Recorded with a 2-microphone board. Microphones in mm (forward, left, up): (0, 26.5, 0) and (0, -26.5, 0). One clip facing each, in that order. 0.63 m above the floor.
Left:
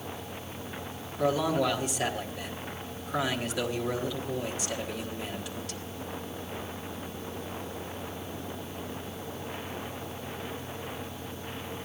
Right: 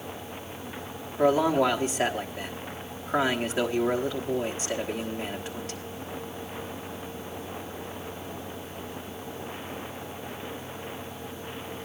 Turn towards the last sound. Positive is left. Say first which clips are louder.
# right 5 dB
turn(degrees=-35)  # may be behind; listen again after turning